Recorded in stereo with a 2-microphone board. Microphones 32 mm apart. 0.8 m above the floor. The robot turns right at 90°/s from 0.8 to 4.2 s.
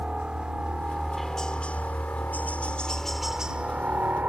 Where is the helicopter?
25° right (ahead or behind); by 4.3 s 65° right (ahead or behind).